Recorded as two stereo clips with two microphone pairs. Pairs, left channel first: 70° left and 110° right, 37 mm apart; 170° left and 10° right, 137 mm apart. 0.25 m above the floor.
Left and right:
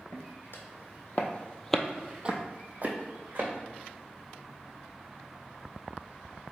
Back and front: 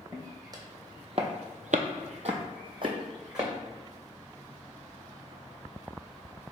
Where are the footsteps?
60° left, 1.0 m; by 3.5 s 75° right, 1.1 m.